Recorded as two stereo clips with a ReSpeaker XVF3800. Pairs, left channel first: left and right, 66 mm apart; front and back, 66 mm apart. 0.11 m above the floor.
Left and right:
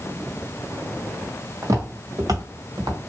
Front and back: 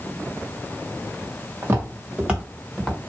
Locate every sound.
1.6 s footsteps: 125° right, 1.1 m; by 3.0 s 90° right, 1.1 m